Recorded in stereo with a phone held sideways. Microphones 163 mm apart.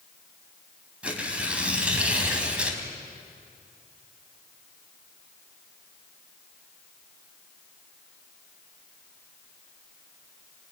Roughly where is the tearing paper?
Centre.